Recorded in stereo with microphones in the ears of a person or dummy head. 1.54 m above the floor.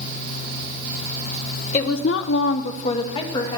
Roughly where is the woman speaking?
Left.